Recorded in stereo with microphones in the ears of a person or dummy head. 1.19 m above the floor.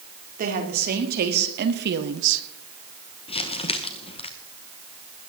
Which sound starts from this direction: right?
A woman speaking, at 0.4 s.